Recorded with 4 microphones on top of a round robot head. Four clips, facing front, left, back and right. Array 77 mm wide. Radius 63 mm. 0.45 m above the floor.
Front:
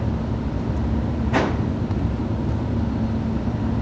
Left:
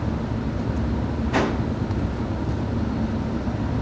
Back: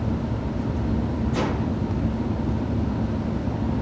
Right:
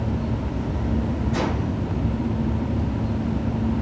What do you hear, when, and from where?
1.3 s a whoosh: 35° left, 2.5 m